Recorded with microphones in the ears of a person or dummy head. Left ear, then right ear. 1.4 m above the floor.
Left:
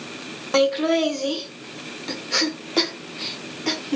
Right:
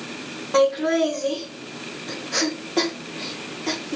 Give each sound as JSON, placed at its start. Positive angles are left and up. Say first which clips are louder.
{"t": 0.5, "sound": "laughter", "louder": "even", "side_deg": 30, "distance_m": 0.9}